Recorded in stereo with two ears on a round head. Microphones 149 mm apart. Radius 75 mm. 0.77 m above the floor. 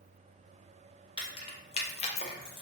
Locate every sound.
1.2 s keys jangling: 30° left (ahead or behind), 0.7 m; by 2.6 s 25° left (ahead or behind), 0.6 m